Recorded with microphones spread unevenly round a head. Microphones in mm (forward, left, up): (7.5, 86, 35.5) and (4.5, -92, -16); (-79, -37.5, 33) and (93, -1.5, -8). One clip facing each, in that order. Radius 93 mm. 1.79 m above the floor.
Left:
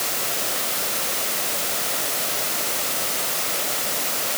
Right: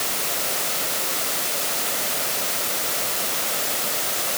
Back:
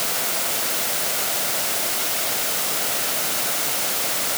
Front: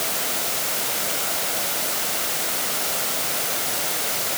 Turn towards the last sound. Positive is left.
No sound to turn to.